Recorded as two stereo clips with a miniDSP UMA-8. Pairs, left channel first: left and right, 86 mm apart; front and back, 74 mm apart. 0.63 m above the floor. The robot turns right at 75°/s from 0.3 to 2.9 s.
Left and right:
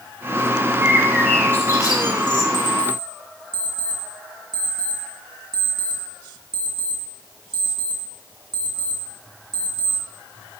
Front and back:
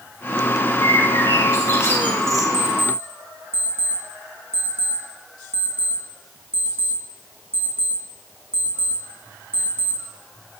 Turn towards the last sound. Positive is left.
turn(degrees=-115)